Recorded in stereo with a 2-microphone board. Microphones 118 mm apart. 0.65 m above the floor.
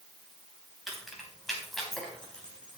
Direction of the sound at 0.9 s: Centre (ahead or behind).